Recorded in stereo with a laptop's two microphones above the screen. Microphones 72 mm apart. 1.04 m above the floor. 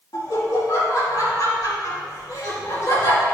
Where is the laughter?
60° left (ahead or behind), 2 m.